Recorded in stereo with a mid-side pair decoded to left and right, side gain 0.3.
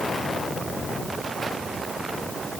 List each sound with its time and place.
Only background noise.